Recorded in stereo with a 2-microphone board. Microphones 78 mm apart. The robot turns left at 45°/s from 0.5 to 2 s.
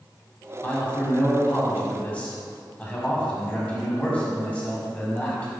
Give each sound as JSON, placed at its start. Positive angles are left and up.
{"t": 0.6, "sound": "a man speaking", "side_deg": 20, "distance_m": 1.6}